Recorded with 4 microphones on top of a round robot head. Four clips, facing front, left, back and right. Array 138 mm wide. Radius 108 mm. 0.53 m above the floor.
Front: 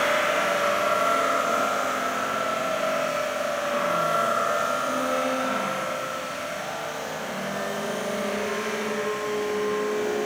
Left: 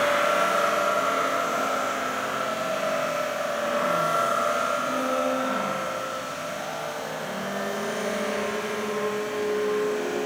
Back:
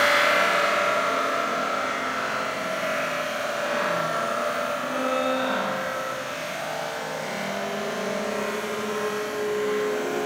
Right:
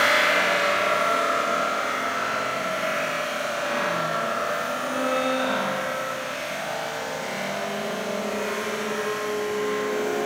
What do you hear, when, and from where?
Only background noise.